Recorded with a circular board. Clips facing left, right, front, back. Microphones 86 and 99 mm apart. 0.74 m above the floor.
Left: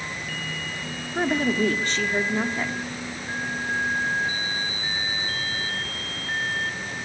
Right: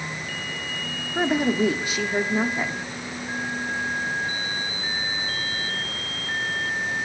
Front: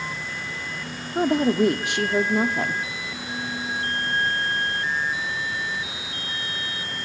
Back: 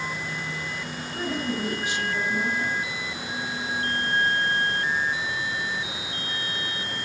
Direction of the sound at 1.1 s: 10° right.